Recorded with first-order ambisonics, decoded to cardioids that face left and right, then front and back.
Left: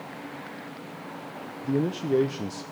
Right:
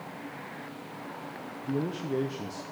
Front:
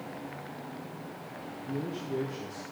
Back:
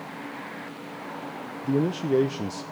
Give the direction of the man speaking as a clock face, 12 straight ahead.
7 o'clock.